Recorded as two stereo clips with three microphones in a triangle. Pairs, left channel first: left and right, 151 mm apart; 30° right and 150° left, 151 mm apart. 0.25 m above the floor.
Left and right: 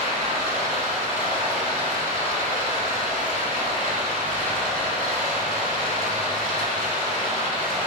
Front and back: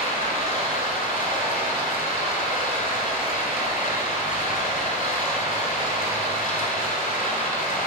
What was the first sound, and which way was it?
Running water, 60° right.